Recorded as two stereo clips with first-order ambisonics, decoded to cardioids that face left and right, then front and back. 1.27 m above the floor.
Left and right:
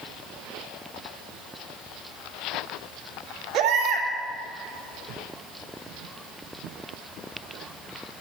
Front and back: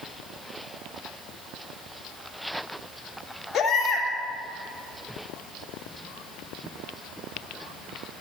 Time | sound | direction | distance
3.5 | a baby crying | 70° right | 2 m